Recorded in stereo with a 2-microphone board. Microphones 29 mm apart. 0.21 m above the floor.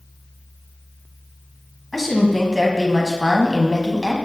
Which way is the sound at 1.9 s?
5° left (ahead or behind).